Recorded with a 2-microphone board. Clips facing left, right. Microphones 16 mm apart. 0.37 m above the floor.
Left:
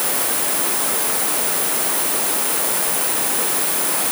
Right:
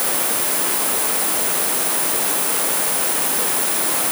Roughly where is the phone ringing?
I don't hear a phone ringing.